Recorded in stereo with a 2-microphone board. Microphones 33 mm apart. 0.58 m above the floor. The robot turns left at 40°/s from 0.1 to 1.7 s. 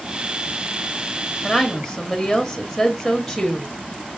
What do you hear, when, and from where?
1.4 s a woman speaking: 5° right (ahead or behind), 0.9 m; by 3.8 s centre (ahead or behind), 0.9 m